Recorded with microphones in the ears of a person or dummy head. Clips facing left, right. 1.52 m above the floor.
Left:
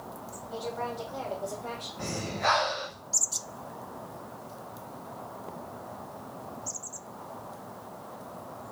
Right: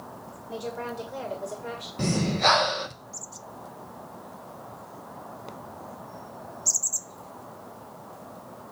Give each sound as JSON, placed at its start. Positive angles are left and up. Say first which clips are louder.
{"t": 0.5, "sound": "a woman speaking", "louder": "right 1 dB", "side_deg": -35, "distance_m": 1.8}
{"t": 2.0, "sound": "breathing", "louder": "right 8 dB", "side_deg": -55, "distance_m": 0.8}